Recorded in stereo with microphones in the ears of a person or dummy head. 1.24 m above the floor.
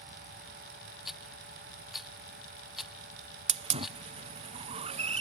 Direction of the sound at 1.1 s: 5° right (ahead or behind).